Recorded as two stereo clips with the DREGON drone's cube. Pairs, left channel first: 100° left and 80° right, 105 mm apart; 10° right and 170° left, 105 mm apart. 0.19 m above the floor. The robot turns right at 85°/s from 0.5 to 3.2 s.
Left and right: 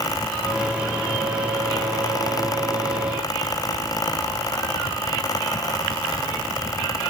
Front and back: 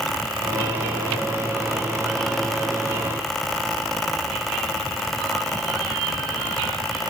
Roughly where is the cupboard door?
No cupboard door in this recording.